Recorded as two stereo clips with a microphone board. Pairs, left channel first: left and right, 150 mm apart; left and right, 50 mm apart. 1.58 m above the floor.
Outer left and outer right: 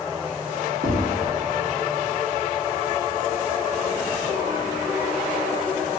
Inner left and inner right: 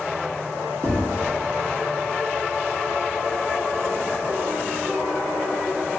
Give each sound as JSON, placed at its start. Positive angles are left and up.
{"t": 0.8, "sound": "tapping", "side_deg": -65, "distance_m": 2.0}